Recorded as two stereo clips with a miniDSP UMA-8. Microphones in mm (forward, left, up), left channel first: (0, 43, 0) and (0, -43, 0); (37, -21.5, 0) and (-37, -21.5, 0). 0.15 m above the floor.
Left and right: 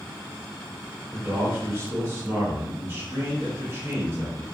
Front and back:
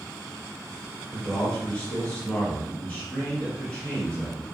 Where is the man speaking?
55° right, 2.0 m.